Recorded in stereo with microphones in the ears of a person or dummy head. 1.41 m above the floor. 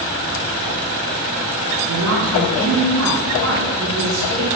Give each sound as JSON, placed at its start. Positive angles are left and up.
{"t": 1.9, "sound": "a woman speaking", "side_deg": -80, "distance_m": 2.5}